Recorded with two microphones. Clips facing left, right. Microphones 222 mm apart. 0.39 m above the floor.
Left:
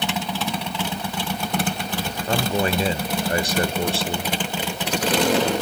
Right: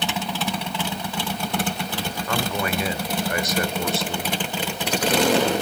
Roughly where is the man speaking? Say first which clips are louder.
Left 4 dB; left.